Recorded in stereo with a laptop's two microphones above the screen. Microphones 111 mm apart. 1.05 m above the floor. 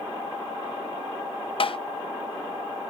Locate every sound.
1.6 s tapping: 55° left (ahead or behind), 0.6 m